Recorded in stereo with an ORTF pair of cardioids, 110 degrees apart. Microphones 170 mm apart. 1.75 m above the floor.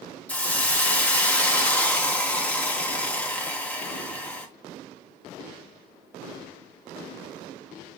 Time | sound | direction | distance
0.3 | a hiss | 10° left | 1.1 m